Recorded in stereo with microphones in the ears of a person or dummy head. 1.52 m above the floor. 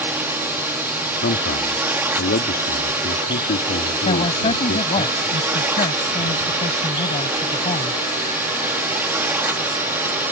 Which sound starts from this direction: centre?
A drone, at 0.0 s.